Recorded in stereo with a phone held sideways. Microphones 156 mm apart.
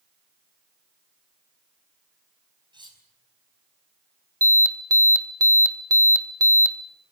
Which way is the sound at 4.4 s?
20° right (ahead or behind).